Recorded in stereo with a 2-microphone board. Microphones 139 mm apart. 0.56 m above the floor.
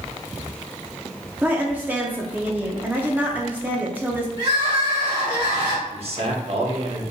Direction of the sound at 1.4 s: 15° right (ahead or behind).